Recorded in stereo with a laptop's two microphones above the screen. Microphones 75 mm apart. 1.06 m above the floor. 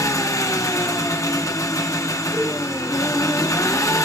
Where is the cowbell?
50° right (ahead or behind), 9.5 m.